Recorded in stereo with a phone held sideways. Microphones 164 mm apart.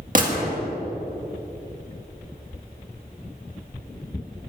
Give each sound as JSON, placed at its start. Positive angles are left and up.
{"t": 0.1, "sound": "a gunshot", "side_deg": -55, "distance_m": 1.9}